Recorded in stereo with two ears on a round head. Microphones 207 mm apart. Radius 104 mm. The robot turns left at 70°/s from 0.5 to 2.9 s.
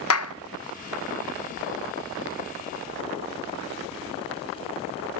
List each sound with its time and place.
0.1 s a clap: 65° left (ahead or behind), 0.6 m